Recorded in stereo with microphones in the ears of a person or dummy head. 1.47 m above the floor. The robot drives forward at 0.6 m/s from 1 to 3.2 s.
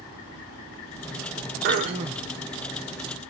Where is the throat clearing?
35° right (ahead or behind), 0.6 m; by 2.3 s 25° right (ahead or behind), 0.9 m.